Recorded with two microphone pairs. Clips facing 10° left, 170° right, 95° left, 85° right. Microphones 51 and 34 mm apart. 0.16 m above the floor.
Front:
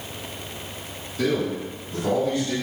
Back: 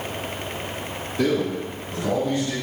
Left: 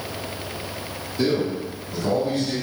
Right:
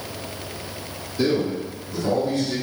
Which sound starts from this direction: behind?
A man speaking, at 1.2 s.